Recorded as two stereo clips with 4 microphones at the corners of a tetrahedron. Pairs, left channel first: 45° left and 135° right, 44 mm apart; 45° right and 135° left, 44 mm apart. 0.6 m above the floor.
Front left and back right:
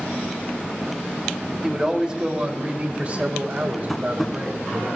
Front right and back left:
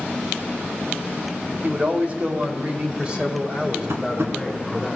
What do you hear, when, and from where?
1.6 s a man speaking: 155° left, 1.6 m; by 4.9 s 150° right, 2.5 m
3.9 s tapping: 135° left, 1.3 m